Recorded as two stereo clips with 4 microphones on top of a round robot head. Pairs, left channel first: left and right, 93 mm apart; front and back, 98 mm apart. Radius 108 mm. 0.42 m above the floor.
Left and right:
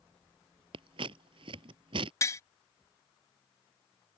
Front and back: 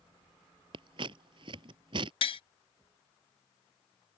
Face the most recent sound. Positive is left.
turn(degrees=30)